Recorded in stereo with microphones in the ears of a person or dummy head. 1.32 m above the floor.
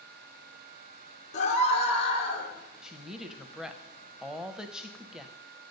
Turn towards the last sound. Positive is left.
turn(degrees=-10)  # may be behind; listen again after turning